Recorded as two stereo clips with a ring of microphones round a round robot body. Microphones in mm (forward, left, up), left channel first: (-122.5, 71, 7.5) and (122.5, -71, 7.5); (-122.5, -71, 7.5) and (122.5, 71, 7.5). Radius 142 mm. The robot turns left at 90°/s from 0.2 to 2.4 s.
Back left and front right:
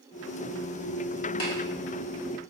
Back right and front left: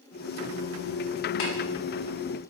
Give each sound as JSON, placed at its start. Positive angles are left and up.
{"t": 1.4, "sound": "tapping", "azimuth_deg": -165, "distance_m": 1.9}